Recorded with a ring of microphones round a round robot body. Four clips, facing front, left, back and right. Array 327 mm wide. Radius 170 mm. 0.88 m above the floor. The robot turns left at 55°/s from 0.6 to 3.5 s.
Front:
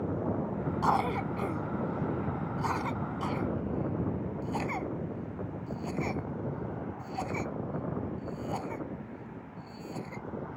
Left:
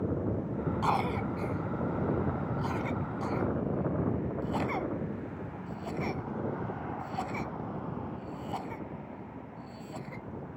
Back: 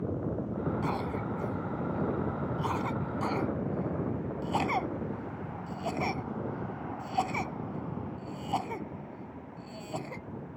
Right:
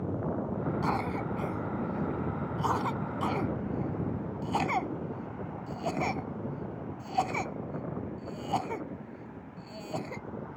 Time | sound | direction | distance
0.8 | a cough | 25° left | ?